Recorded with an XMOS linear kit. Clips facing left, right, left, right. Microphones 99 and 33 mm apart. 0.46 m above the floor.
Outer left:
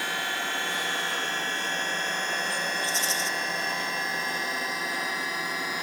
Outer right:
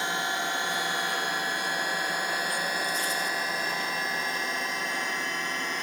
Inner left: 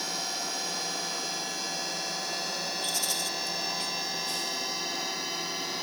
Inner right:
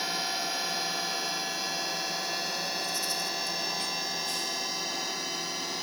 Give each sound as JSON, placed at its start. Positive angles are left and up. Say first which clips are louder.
{"t": 0.0, "sound": "a drone", "louder": "outer right 2 dB, inner right 2 dB", "side_deg": -20}
{"t": 2.8, "sound": "a rattle", "louder": "even, inner left 1 dB", "side_deg": 80}